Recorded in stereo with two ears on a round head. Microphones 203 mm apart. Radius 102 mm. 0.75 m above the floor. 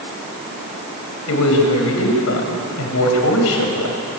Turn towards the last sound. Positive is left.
turn(degrees=60)  # may be behind; listen again after turning